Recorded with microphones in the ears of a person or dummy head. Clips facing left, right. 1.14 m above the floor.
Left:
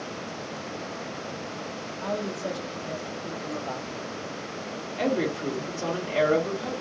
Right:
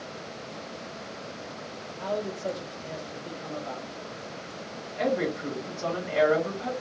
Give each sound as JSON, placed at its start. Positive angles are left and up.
{"t": 2.0, "sound": "a man speaking", "side_deg": 40, "distance_m": 1.8}
{"t": 5.0, "sound": "a woman speaking", "side_deg": 40, "distance_m": 2.5}